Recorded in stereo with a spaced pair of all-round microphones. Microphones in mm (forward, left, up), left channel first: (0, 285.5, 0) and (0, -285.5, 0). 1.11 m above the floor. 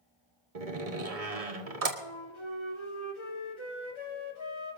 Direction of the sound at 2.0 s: 50° left (ahead or behind).